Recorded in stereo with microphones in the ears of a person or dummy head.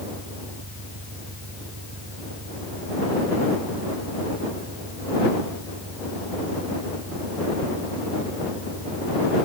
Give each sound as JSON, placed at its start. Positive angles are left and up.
{"t": 0.0, "sound": "an engine running", "side_deg": -70}